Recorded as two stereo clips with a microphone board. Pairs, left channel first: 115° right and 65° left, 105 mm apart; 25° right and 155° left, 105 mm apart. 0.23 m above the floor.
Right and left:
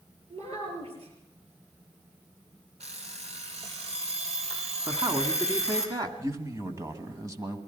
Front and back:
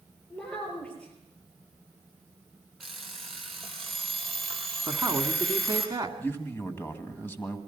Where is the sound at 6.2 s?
35° left, 2.0 m.